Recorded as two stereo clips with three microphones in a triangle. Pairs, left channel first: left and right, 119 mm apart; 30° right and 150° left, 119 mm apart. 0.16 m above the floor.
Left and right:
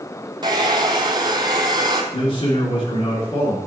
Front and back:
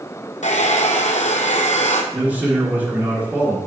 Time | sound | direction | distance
0.4 | a hair dryer | 35° right | 0.9 m
2.1 | a man speaking | 80° left | 2.5 m